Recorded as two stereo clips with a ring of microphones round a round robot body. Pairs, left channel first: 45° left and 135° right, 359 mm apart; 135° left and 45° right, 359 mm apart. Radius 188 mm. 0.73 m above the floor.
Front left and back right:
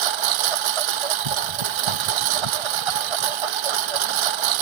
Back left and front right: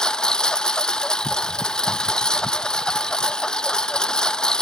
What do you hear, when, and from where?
0.0 s a lawn mower: 135° right